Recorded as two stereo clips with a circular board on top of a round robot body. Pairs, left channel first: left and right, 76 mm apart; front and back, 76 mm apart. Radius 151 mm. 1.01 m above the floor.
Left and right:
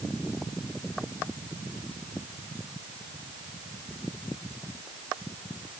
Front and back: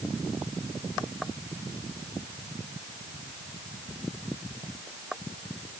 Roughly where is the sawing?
I don't hear sawing.